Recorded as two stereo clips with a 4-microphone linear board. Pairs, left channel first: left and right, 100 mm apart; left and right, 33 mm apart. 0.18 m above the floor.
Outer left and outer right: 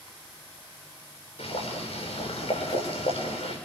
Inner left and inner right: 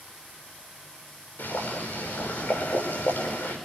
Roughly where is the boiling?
Left.